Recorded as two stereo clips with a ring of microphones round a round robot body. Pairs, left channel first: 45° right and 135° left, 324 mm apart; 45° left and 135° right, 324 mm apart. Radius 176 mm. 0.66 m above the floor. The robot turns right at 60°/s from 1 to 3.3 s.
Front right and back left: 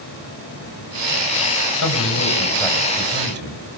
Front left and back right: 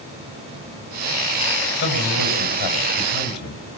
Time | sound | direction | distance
1.8 | a man speaking | 15° right | 5 m